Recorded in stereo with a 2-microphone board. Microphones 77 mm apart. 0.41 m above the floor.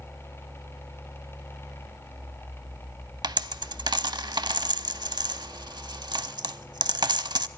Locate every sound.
3.2 s a dropped coin: 65° right (ahead or behind), 0.6 m